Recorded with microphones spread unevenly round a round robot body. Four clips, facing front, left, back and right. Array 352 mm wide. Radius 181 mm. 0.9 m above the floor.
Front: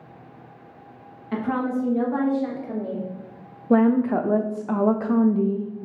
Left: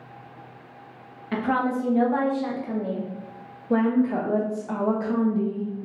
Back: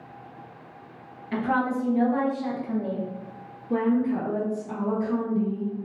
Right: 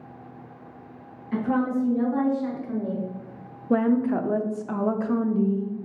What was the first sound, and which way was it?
A woman speaking, 80° left.